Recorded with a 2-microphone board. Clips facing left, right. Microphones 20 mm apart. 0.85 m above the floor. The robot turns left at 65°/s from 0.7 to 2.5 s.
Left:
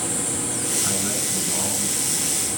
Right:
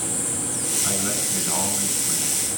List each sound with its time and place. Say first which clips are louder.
0.8 s a man speaking: even; 5° right, 5 m; by 2.4 s 105° right, 5 m